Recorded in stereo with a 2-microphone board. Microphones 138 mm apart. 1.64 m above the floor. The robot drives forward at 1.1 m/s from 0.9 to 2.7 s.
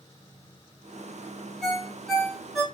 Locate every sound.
1.6 s a ringtone: centre (ahead or behind), 1.7 m